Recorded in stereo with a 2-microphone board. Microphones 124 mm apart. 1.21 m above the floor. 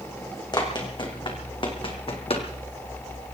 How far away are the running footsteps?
About 3 m.